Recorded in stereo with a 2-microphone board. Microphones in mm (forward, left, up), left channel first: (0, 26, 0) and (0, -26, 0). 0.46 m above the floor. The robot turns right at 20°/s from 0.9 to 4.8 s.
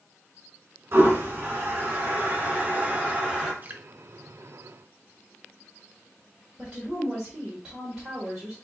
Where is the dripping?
35° right (ahead or behind), 0.6 m.